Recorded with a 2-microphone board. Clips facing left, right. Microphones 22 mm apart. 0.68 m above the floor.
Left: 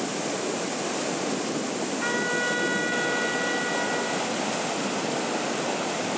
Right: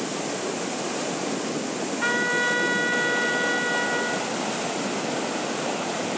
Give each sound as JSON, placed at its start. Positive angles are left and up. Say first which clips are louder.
{"t": 2.0, "sound": "a trumpet", "louder": "right 4 dB", "side_deg": -20, "distance_m": 0.5}